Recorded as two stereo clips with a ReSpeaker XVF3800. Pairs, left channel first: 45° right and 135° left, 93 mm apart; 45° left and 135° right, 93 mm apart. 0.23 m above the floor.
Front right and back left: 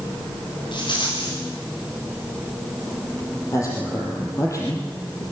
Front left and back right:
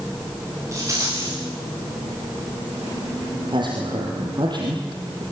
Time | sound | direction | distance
0.7 | a rattle | 80° right | 10 m
3.5 | a man speaking | 100° right | 6.5 m